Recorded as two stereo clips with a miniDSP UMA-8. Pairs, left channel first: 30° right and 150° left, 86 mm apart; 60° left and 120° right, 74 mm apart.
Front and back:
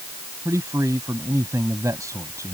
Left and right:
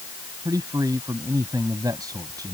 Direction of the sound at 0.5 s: 155° right.